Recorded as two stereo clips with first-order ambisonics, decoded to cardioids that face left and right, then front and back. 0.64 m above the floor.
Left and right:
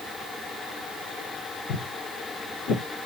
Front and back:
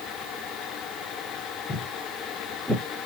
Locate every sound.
1.7 s footsteps: 75° left, 1.5 m; by 2.8 s 100° left, 1.2 m